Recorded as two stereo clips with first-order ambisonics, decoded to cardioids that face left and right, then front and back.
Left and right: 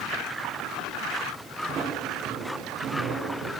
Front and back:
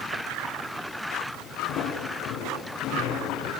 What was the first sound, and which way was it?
Footsteps, 30° right.